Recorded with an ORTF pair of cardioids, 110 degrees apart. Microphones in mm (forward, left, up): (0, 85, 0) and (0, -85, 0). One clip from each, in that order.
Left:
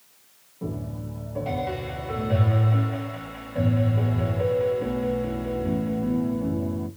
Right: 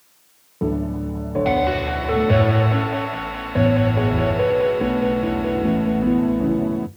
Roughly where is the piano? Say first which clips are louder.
Right 11 dB; ahead right.